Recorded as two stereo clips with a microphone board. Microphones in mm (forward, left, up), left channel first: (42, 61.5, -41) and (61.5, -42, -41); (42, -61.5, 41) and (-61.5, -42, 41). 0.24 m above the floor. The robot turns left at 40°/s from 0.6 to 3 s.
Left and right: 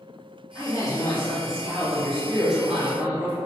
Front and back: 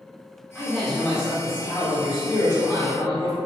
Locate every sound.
0.6 s a man speaking: 80° left, 1.3 m; by 3.4 s 15° right, 1.3 m